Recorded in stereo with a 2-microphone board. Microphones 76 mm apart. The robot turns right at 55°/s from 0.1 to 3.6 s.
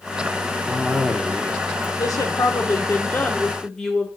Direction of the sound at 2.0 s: 85° left.